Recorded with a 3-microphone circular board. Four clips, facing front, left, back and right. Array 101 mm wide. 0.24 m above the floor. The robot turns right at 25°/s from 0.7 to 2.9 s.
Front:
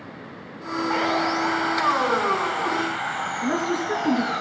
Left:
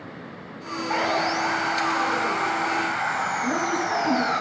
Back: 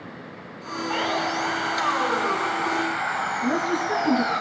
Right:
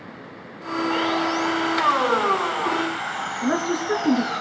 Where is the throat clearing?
I don't hear throat clearing.